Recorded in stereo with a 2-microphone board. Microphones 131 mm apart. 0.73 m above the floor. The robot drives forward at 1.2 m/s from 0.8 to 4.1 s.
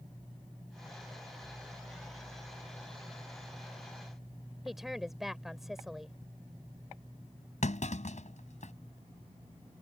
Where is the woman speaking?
Centre (ahead or behind).